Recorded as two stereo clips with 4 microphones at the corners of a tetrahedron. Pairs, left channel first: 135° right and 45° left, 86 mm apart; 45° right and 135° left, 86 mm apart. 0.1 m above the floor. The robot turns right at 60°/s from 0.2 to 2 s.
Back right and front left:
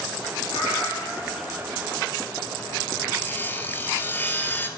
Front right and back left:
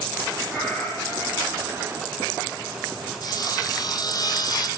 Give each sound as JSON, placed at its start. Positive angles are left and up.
{"t": 0.5, "sound": "a cat meowing", "azimuth_deg": -135, "distance_m": 6.5}
{"t": 3.2, "sound": "sawing", "azimuth_deg": -70, "distance_m": 1.1}